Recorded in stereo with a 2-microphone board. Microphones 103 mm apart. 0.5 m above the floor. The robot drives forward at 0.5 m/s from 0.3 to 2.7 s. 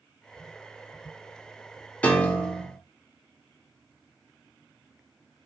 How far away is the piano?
About 0.7 m.